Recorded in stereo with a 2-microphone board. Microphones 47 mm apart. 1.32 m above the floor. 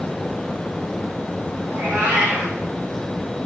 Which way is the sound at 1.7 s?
30° right (ahead or behind).